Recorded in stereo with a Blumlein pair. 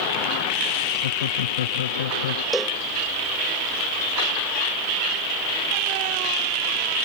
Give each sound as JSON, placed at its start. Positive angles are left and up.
{"t": 1.0, "sound": "laughter", "azimuth_deg": 60}
{"t": 2.5, "sound": "a cowbell", "azimuth_deg": 0}